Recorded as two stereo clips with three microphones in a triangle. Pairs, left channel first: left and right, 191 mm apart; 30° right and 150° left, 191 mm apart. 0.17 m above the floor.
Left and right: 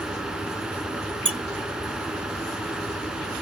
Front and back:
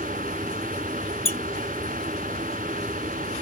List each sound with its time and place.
1.2 s a squeak: 75° right, 1.0 m